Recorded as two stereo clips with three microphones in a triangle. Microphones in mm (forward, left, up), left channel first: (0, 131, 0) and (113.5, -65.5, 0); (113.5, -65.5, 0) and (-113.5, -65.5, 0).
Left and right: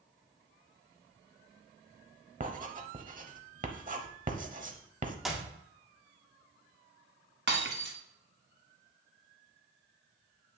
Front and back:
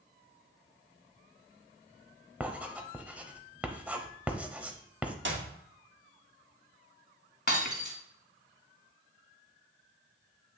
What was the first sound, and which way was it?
Writing, 100° right.